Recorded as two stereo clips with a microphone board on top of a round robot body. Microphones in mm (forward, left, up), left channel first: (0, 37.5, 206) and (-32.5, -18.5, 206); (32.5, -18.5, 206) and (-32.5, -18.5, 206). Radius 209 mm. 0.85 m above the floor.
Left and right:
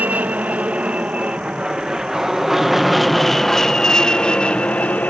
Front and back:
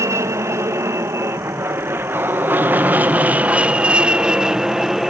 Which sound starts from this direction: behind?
An aircraft, at 0.0 s.